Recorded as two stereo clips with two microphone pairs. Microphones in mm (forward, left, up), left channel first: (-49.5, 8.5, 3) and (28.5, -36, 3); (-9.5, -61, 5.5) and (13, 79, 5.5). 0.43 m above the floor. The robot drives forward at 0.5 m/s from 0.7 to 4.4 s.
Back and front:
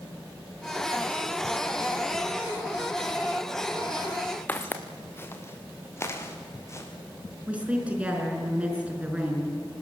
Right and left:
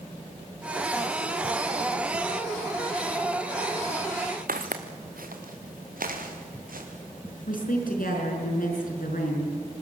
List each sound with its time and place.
4.5 s footsteps: 80° left, 1.8 m; by 6.9 s 95° left, 4.5 m
7.5 s a woman speaking: 105° right, 5 m